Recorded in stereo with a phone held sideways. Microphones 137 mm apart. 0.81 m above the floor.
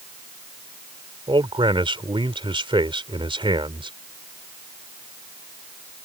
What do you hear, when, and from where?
1.3 s a man speaking: 40° right (ahead or behind)